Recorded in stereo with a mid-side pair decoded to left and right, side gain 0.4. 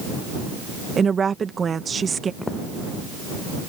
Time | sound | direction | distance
1.0 | a woman speaking | 45° right | ?
2.4 | footsteps | 20° left | ?